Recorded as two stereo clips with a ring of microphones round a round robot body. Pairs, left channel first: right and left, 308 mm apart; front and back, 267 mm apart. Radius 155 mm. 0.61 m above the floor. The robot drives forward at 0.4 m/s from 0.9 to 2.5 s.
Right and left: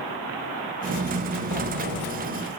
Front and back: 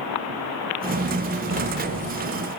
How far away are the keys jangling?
About 9.5 m.